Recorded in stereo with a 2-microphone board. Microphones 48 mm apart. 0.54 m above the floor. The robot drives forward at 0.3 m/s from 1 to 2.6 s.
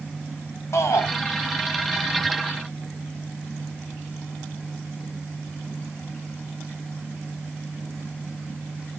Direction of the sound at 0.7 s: 75° left (ahead or behind).